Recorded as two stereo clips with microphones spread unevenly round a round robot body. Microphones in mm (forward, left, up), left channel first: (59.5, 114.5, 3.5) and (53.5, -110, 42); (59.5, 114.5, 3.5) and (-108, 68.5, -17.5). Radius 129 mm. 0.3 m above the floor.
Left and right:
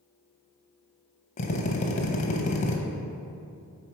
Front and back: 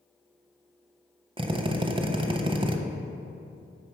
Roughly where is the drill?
Behind left.